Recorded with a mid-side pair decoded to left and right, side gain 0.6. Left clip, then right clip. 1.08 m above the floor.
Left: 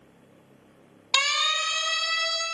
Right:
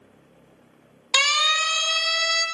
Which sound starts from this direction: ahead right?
A siren, at 1.1 s.